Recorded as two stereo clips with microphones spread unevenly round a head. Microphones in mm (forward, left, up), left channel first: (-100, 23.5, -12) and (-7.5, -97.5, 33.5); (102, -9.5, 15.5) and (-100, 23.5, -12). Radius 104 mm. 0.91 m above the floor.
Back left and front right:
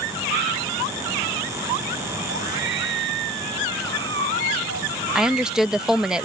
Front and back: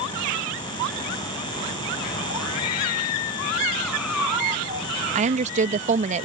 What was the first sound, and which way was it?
A scream, 25° right.